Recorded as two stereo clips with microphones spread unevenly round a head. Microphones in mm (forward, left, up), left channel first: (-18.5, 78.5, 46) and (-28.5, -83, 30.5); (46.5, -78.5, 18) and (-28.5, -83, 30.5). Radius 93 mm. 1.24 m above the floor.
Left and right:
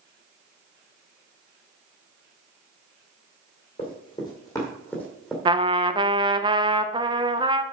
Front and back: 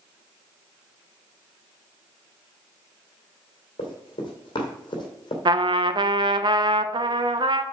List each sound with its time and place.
3.8 s running footsteps: 30° left, 2.5 m; by 5.3 s 5° left, 1.9 m
5.5 s a trumpet: 155° right, 0.6 m